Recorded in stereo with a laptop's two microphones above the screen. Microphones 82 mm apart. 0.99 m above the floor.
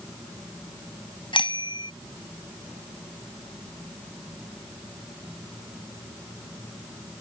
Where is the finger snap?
No finger snap in this recording.